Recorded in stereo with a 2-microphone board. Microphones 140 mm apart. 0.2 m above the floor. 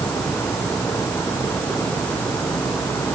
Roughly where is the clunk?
I don't hear a clunk.